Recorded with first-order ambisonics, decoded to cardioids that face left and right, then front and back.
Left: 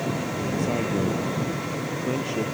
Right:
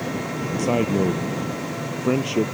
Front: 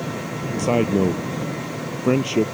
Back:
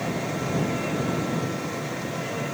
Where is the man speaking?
25° right.